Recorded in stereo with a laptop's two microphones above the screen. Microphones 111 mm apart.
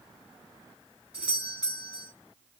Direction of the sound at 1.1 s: 10° right (ahead or behind).